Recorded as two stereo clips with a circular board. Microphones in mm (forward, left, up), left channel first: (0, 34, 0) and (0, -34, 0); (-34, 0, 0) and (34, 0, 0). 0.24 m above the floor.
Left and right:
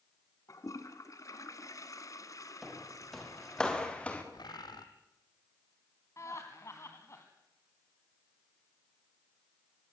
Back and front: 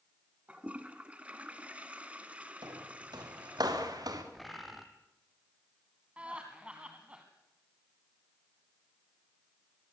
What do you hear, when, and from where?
0.5 s a toilet flushing: 65° left, 1.7 m
2.6 s footsteps: straight ahead, 5 m; by 4.2 s 20° left, 4 m
4.3 s a bird: 90° left, 2.5 m
6.2 s laughter: 65° left, 2.0 m